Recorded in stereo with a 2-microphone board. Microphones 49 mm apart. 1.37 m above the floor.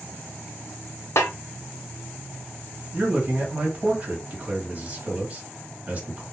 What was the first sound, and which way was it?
A snare drum, 65° left (ahead or behind).